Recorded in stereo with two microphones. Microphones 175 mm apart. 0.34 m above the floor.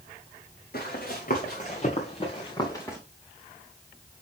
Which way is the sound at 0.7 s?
60° left (ahead or behind).